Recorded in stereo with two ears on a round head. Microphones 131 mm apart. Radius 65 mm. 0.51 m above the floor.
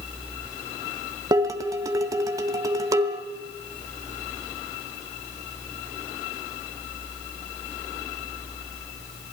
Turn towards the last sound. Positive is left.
turn(degrees=-25)  # may be behind; listen again after turning